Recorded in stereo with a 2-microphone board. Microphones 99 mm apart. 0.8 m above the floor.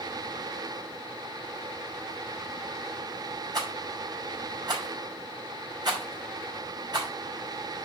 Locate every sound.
3.5 s a rattle: 45° right (ahead or behind), 5 m